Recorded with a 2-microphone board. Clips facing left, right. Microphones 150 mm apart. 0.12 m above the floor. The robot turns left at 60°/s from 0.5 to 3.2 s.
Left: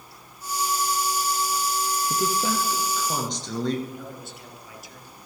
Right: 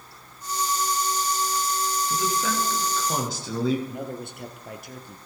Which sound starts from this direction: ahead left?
A man speaking, at 2.1 s.